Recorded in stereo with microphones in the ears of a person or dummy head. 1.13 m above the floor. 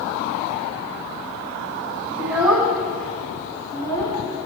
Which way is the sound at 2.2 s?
20° right (ahead or behind).